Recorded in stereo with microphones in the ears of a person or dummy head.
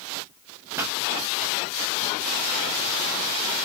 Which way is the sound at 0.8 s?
10° right (ahead or behind).